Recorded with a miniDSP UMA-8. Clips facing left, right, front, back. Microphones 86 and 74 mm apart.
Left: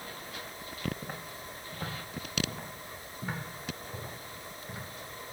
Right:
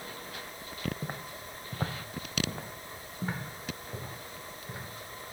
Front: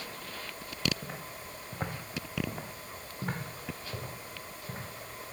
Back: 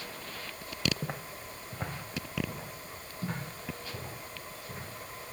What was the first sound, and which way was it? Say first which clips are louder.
Footsteps: right 1 dB, back 2 dB; 150° right.